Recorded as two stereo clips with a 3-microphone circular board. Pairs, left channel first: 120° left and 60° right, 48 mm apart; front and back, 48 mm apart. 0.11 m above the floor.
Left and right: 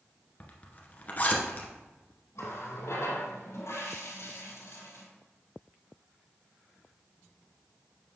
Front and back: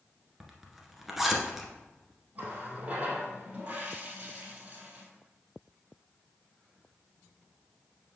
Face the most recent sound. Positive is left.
turn(degrees=125)